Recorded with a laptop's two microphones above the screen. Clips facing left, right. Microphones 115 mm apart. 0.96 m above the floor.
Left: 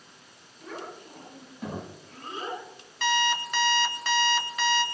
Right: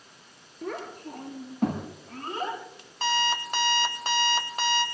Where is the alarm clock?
40° right (ahead or behind), 1.6 m.